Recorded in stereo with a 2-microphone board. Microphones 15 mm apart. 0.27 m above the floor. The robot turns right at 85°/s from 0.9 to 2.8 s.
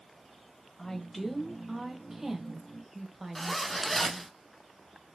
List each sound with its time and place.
0.8 s a woman speaking: 10° left (ahead or behind), 1.0 m; by 4.3 s 20° right (ahead or behind), 1.0 m
3.4 s a zipper: 5° left (ahead or behind), 0.5 m